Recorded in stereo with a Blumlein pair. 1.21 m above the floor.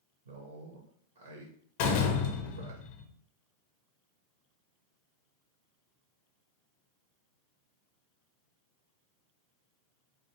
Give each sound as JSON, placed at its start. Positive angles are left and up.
{"t": 0.2, "sound": "a man speaking", "azimuth_deg": -70, "distance_m": 0.6}
{"t": 1.8, "sound": "a door slam", "azimuth_deg": 50, "distance_m": 0.6}